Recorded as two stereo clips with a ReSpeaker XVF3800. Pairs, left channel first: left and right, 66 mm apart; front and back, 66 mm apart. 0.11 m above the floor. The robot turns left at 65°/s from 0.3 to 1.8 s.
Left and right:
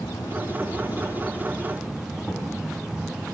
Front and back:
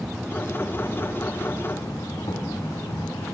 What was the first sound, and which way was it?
An insect, 90° left.